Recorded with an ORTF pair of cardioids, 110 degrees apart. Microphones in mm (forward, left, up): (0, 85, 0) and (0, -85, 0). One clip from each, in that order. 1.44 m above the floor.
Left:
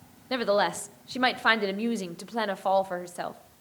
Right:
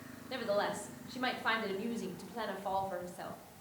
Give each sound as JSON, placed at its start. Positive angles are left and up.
{"t": 0.3, "sound": "a woman speaking", "azimuth_deg": 55, "distance_m": 0.8}